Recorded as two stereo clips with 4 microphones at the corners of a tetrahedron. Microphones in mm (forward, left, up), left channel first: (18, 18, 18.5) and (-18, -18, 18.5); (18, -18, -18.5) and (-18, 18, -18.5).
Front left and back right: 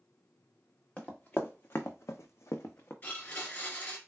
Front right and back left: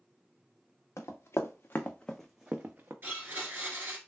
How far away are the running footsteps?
About 0.9 m.